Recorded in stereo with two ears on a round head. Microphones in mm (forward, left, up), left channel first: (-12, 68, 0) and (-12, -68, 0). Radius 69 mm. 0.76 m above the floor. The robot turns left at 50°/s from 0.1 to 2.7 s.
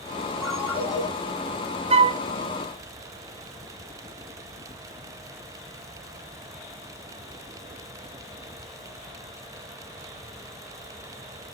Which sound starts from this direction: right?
A flute, at 1.9 s.